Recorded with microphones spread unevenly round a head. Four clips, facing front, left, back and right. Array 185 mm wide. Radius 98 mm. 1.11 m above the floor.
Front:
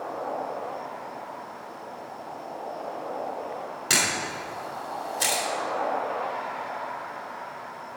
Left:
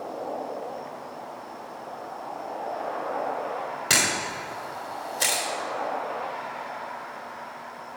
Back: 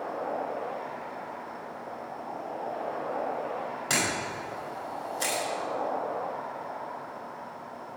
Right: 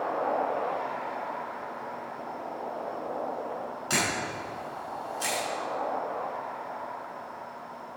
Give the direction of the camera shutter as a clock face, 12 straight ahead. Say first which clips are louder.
Left 1 dB, front 3 dB; 10 o'clock.